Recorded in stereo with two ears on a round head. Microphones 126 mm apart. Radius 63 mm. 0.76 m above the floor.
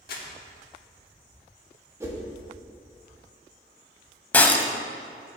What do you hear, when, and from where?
0.1 s crumpling: 75° left (ahead or behind), 1.5 m
2.0 s a whoosh: 20° right (ahead or behind), 1.3 m
4.3 s breaking glass: 15° left (ahead or behind), 0.7 m